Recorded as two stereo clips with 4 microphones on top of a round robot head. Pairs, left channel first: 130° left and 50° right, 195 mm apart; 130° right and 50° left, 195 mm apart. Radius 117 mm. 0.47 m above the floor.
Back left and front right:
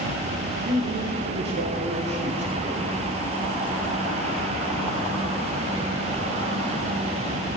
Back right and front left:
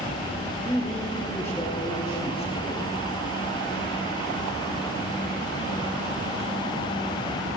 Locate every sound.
0.6 s a man speaking: 30° right, 2 m; by 2.9 s 75° right, 3.5 m